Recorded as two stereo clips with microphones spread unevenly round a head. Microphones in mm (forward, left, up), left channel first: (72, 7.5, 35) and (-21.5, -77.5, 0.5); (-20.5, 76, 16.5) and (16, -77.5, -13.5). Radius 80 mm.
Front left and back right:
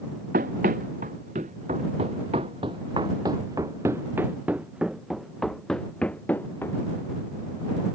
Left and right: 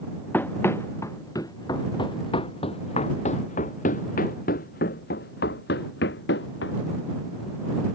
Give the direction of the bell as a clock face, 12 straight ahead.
I don't hear a bell.